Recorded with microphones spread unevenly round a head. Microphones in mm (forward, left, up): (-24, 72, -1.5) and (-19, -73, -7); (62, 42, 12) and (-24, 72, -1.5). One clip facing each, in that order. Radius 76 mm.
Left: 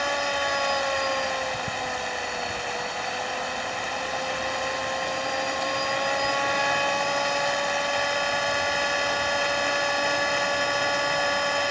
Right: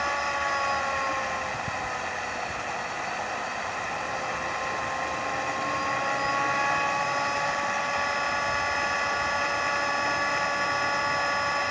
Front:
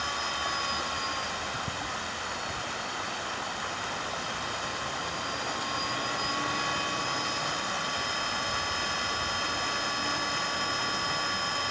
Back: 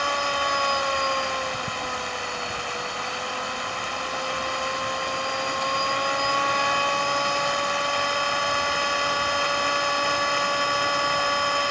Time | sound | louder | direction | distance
0.0 | a machine running | left 3 dB, back 8 dB | 140° left | ?